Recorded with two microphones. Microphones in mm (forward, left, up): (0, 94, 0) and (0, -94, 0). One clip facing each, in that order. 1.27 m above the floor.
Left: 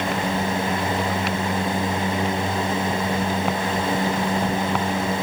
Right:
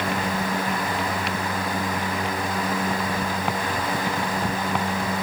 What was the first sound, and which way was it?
Only background noise.